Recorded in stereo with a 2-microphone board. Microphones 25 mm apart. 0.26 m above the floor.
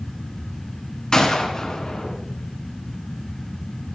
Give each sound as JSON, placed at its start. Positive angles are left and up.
{"t": 1.1, "sound": "a gunshot", "side_deg": 25, "distance_m": 2.0}